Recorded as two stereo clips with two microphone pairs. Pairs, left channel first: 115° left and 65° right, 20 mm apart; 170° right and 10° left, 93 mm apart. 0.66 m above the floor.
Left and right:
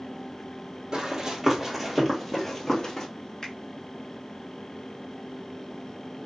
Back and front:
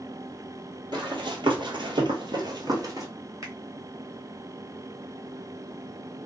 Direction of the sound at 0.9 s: 10° right.